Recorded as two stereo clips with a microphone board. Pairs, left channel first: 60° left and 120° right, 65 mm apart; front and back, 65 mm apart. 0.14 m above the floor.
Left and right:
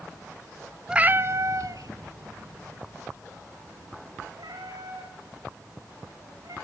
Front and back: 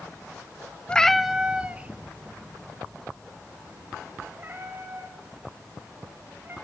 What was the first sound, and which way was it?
A cat meowing, 55° right.